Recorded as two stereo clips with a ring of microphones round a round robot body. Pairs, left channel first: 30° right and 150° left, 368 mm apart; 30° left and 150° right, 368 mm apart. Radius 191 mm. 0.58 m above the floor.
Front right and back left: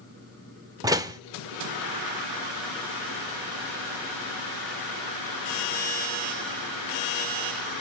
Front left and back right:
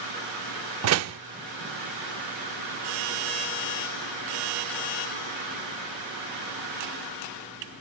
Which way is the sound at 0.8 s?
135° right.